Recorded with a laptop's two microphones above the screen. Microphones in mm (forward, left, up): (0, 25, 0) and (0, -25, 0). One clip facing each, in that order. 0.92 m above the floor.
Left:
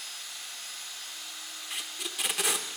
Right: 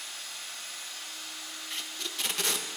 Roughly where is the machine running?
Right.